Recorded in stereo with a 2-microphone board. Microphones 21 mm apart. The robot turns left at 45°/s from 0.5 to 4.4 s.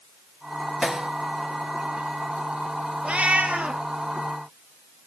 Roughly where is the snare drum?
Right.